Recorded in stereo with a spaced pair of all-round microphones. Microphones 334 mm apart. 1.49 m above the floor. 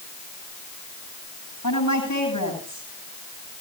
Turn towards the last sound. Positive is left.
turn(degrees=85)